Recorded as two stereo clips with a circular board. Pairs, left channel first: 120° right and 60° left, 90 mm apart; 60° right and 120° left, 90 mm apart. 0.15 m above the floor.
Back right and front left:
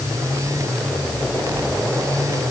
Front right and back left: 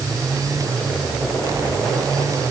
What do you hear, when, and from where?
Only background noise.